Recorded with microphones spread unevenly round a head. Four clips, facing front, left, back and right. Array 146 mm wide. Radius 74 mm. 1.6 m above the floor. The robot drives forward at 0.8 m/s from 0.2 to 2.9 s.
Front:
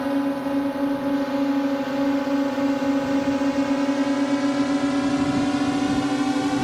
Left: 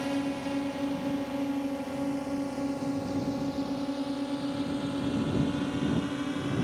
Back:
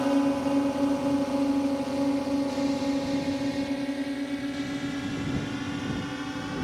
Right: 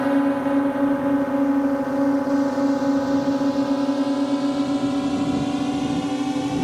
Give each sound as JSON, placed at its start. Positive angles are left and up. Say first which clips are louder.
{"t": 0.0, "sound": "a drone", "louder": "right 11 dB, front 1 dB", "azimuth_deg": -90}